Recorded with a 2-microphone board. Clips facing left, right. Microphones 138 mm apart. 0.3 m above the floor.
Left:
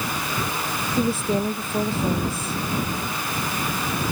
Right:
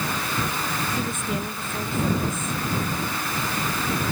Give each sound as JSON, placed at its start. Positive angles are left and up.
{"t": 1.0, "sound": "a woman speaking", "side_deg": 35}